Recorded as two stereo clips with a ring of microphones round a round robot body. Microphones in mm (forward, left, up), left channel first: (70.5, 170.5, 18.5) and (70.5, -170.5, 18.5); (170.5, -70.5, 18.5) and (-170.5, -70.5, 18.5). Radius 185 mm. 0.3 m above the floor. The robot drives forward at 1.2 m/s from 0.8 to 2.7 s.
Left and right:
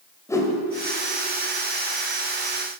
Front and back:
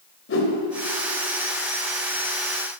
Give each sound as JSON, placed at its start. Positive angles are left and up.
{"t": 0.3, "sound": "a whoosh", "azimuth_deg": 15, "distance_m": 1.8}